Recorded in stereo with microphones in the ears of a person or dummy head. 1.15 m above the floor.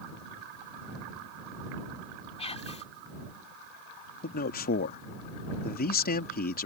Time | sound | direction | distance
2.4 | whispering | 35° left (ahead or behind) | ?
4.2 | a man speaking | 50° left (ahead or behind) | ?